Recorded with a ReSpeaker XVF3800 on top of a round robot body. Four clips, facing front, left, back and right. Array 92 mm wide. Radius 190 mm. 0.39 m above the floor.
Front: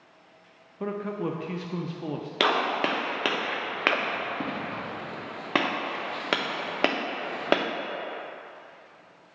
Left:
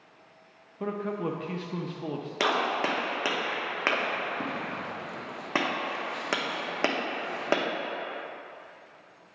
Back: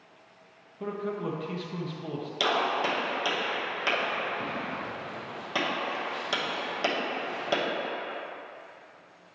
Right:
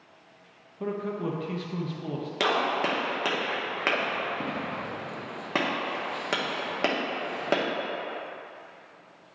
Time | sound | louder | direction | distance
0.8 | a man speaking | even, front 2 dB | 35° left | 0.8 m
2.4 | a gunshot | right 1 dB, front 2 dB | 15° left | 1.0 m